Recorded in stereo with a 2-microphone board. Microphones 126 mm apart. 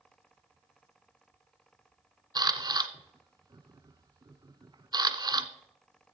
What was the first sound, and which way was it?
A camera shutter, 35° right (ahead or behind).